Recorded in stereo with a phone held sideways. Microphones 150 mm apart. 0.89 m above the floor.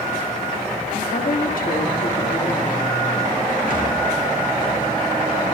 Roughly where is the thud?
Right.